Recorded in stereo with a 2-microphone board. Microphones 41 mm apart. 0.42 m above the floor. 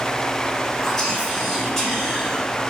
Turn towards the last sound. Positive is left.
turn(degrees=15)  # may be behind; listen again after turning